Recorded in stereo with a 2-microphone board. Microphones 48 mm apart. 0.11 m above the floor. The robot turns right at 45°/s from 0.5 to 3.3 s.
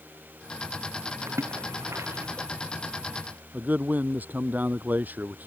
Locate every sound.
1.3 s a splash: 65° right (ahead or behind); by 2.5 s 60° right (ahead or behind)
3.5 s a man speaking: 40° right (ahead or behind)